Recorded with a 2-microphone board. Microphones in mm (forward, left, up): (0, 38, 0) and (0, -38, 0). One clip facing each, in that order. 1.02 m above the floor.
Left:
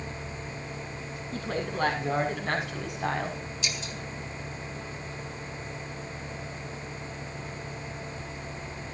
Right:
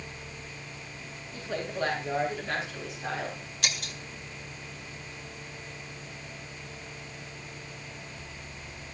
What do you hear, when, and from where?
1.3 s a woman speaking: 70° left (ahead or behind), 7.5 m; by 3.4 s 60° left (ahead or behind), 6 m
3.6 s breaking glass: 60° right (ahead or behind), 2.0 m